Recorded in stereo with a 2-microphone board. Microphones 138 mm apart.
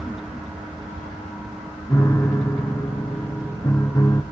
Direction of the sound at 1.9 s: 25° left (ahead or behind).